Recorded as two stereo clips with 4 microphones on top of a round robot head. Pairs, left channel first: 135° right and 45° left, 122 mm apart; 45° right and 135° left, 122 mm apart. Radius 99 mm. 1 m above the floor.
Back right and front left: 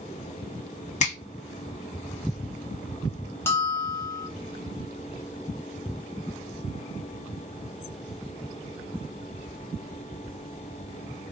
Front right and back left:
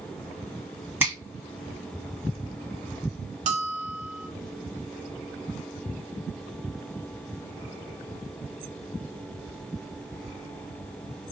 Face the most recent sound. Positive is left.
turn(degrees=155)